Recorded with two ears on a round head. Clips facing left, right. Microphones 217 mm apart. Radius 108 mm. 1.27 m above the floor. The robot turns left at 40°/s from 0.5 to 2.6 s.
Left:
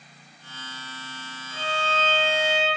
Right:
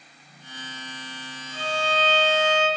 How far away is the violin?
About 1.7 m.